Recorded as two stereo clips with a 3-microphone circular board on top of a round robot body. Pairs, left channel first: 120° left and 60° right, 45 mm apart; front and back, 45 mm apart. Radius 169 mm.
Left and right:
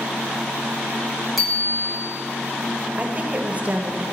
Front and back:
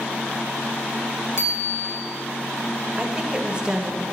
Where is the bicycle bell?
30° left, 4.5 m.